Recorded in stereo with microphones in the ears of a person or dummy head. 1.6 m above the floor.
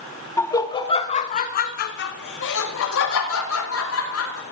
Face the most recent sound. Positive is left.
turn(degrees=80)